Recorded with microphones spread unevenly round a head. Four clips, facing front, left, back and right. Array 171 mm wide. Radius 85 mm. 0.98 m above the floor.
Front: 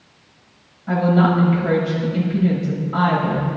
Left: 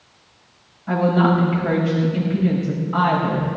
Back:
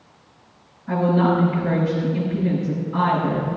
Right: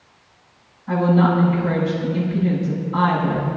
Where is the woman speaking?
40° left, 5.5 m.